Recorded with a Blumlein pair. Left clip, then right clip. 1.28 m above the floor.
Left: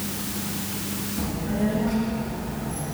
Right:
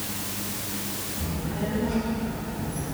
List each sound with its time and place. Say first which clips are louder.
1.2 s a child speaking: left 6 dB; 25° left, 1.6 m; by 3.0 s 35° left, 3.5 m